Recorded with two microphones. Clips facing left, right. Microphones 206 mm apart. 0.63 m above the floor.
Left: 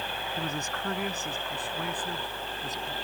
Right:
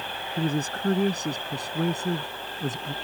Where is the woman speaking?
30° right (ahead or behind); by 2.9 s 50° right (ahead or behind).